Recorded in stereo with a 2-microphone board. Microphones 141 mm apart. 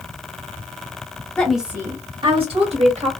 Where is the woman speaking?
10° left (ahead or behind), 1.0 m; by 3.1 s 55° right (ahead or behind), 2 m.